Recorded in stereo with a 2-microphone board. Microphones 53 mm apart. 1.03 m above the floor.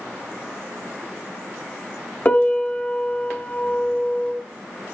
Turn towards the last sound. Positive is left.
turn(degrees=30)  # may be behind; listen again after turning